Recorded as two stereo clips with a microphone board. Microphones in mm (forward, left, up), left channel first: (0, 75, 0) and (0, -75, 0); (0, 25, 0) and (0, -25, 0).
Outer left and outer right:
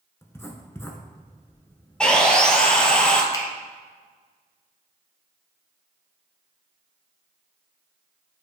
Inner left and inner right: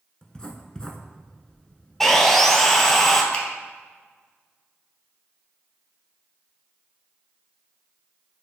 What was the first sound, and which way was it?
Writing, 15° left (ahead or behind).